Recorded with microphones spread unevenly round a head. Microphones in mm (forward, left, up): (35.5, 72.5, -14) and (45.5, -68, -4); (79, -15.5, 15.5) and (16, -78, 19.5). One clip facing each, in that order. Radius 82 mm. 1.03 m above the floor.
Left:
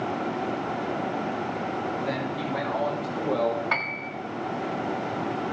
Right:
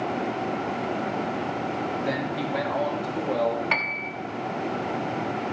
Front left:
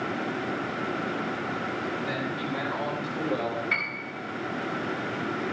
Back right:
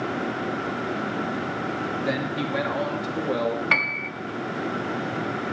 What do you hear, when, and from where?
2.0 s a man speaking: 140° right, 3 m; by 3.6 s straight behind, 2 m
3.7 s a piano: 160° right, 1.1 m